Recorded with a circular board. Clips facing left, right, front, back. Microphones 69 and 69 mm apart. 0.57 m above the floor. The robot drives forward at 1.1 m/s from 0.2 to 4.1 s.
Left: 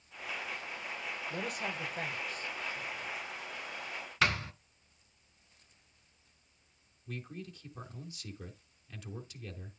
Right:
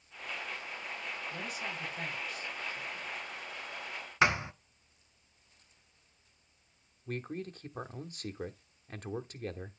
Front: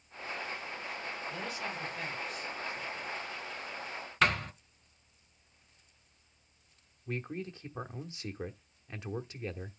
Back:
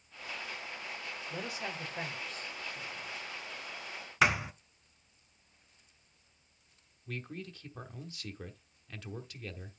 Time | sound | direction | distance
1.3 | a man speaking | 110° left | 2.5 m
4.2 | a thud | 120° right | 0.5 m
7.1 | a man speaking | 60° right | 1.0 m